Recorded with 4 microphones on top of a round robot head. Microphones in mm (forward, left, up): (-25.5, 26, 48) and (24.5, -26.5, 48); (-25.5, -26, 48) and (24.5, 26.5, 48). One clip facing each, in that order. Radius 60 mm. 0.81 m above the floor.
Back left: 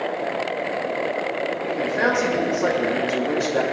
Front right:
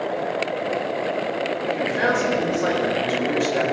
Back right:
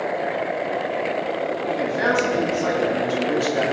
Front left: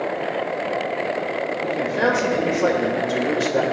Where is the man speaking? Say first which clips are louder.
Even, front left 2 dB; 55° left, 3.5 m.